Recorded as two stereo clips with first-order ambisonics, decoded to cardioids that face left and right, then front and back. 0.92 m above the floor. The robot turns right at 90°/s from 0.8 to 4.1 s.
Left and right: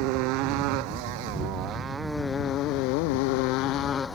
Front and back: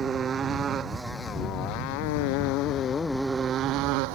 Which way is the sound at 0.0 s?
115° right.